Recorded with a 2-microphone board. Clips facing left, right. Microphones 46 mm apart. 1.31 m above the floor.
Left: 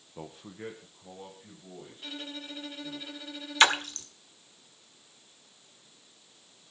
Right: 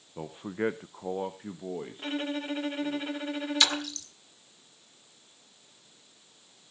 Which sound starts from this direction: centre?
A man speaking, at 0.2 s.